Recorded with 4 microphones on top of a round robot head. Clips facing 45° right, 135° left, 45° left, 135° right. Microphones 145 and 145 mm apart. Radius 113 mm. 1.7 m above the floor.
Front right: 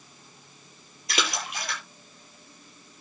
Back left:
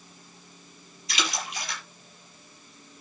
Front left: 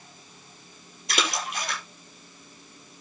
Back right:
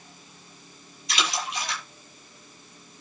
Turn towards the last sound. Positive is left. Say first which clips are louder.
# front right 2 dB, front left 1 dB
turn(degrees=0)